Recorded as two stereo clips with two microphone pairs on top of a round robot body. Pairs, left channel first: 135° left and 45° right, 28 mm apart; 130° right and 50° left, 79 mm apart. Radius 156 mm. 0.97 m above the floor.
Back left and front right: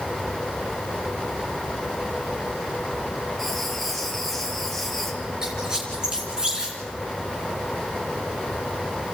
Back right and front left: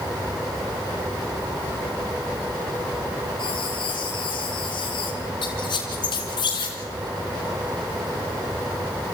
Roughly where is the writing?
Behind right.